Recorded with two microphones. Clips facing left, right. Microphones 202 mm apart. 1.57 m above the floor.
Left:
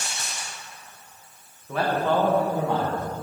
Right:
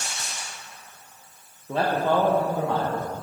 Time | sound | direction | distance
1.7 | a man speaking | 35° right (ahead or behind) | 1.5 m